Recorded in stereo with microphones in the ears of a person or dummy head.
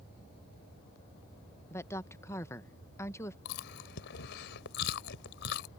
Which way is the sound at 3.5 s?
70° left (ahead or behind).